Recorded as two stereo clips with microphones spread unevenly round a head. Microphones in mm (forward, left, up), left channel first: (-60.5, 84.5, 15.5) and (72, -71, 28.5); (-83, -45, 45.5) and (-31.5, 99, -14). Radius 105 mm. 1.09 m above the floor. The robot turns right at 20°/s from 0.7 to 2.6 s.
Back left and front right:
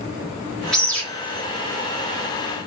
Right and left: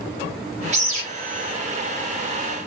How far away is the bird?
About 1.5 m.